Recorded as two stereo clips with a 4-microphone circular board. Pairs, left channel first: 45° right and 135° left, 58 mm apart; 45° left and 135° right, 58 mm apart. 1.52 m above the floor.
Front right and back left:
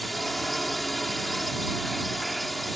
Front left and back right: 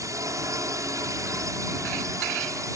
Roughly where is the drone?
Behind right.